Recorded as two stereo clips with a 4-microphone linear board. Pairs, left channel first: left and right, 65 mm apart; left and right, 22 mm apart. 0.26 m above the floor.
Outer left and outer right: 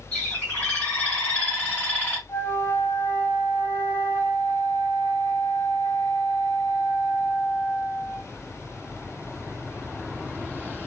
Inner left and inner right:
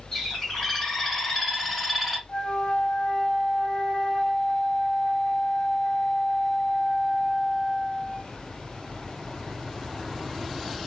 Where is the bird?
15° left (ahead or behind), 2.0 m.